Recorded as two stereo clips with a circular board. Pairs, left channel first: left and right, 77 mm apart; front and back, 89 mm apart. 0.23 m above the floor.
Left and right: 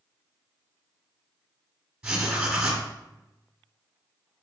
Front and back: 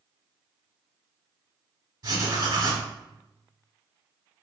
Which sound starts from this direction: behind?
Writing, at 2.0 s.